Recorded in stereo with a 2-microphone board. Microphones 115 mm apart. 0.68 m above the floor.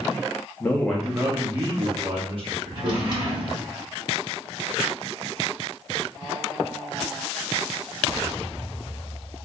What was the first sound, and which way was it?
A man speaking, 20° left (ahead or behind).